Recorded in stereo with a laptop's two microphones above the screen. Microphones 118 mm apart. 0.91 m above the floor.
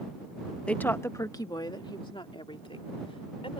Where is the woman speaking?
10° left (ahead or behind); by 3.6 s 50° left (ahead or behind).